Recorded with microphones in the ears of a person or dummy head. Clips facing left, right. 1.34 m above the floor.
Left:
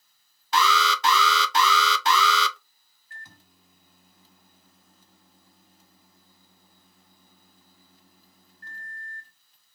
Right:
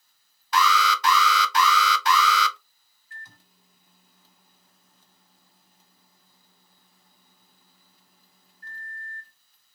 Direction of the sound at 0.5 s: 20° left (ahead or behind).